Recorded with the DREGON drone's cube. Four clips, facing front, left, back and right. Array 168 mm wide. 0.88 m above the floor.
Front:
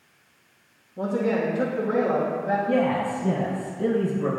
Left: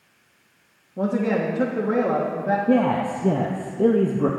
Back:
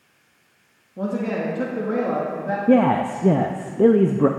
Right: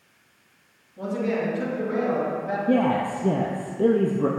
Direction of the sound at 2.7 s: 170° left.